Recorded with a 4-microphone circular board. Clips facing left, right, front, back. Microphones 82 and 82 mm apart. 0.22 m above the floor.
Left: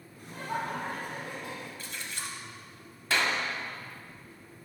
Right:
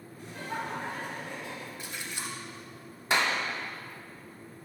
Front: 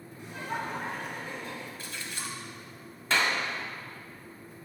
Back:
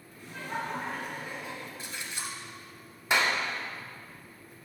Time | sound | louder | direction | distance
0.2 | laughter | left 2 dB, front 1 dB | 65° left | 2 m
1.8 | a splash | right 1 dB, even | 140° right | 0.9 m
3.1 | a clap | right 1 dB, back 1 dB | 130° right | 0.9 m